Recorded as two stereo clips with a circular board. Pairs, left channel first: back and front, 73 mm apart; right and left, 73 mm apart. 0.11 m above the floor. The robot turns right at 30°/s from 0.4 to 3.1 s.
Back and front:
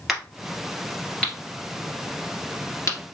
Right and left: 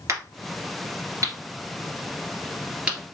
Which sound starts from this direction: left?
A crack, at 0.1 s.